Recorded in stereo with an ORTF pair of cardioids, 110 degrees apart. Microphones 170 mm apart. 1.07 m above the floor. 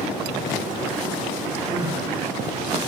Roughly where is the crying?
Ahead.